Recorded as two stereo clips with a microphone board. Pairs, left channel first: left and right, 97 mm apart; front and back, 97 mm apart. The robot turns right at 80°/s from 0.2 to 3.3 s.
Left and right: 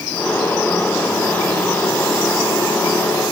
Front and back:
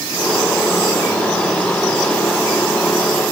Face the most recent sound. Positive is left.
No sound to turn to.